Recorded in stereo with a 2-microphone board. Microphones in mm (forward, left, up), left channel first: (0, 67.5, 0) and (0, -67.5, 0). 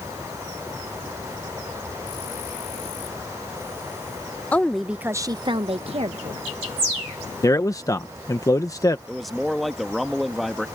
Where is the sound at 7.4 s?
25° left (ahead or behind).